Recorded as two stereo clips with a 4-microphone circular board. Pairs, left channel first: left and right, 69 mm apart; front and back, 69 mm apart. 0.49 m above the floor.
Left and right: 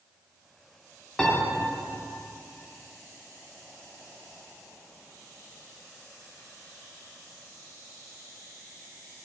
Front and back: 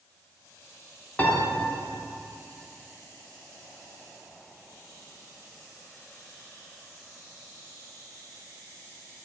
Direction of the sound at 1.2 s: 25° left.